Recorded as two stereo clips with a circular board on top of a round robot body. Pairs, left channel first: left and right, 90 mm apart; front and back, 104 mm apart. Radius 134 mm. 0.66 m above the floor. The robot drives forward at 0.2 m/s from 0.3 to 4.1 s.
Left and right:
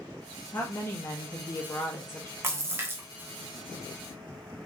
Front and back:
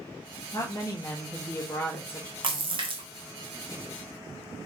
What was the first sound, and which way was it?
A woman speaking, 40° left.